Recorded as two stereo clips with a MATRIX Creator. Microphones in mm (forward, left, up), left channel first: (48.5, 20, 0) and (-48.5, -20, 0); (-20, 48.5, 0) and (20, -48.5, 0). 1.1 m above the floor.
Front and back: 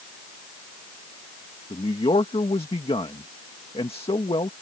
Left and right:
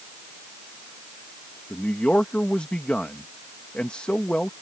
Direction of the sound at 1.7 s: 35° left.